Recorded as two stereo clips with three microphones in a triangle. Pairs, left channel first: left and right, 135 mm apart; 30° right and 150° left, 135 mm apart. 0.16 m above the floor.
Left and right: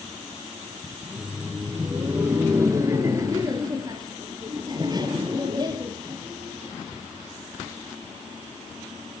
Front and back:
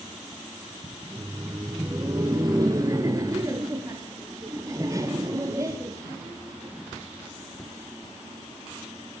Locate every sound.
1.0 s laughter: 170° right, 1.4 m; by 6.7 s 145° right, 4.5 m